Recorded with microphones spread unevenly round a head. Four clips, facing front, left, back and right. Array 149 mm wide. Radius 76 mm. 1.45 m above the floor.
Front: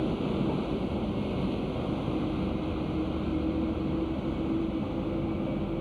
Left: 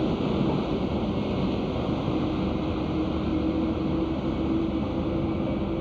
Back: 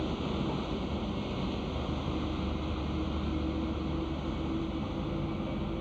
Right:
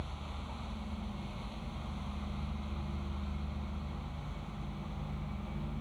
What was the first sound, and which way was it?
A vehicle, 75° left.